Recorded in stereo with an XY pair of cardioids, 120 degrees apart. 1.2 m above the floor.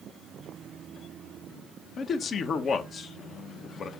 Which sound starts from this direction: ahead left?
A man speaking, at 2.0 s.